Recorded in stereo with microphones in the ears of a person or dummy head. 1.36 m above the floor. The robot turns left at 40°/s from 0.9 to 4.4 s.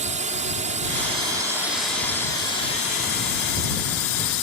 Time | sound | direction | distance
0.0 | a drone | 140° right | ?